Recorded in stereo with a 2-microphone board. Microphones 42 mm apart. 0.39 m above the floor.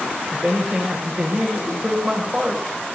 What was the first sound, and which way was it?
A man speaking, 25° right (ahead or behind).